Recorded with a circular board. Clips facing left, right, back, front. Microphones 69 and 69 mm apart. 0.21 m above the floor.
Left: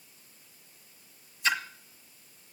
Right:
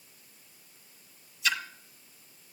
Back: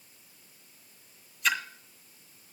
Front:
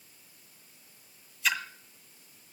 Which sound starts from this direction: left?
A splash, at 1.4 s.